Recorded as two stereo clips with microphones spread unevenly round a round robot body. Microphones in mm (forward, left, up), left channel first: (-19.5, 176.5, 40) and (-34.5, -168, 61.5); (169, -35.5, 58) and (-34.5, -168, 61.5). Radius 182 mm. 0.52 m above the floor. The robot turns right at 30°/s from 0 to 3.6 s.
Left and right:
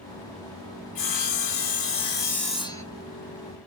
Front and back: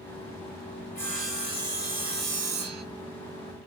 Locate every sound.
0.9 s sawing: 115° left, 1.7 m; by 2.8 s 170° left, 1.7 m